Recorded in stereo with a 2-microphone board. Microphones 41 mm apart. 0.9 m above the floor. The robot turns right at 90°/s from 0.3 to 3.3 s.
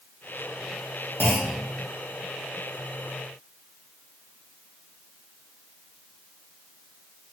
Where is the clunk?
130° left, 0.6 m; by 1.6 s 160° left, 0.6 m.